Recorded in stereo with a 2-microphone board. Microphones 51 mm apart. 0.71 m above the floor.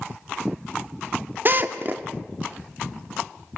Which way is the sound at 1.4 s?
40° right (ahead or behind).